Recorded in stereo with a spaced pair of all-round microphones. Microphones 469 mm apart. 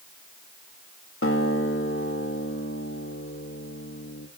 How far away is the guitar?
About 1.9 m.